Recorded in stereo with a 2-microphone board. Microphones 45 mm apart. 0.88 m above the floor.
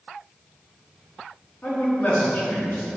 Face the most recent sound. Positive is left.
turn(degrees=40)  # may be behind; listen again after turning